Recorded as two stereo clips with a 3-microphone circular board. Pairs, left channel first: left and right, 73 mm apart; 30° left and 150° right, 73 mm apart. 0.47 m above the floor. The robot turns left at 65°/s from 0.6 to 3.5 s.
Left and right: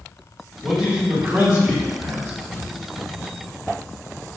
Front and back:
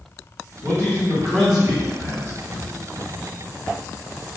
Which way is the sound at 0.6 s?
20° right.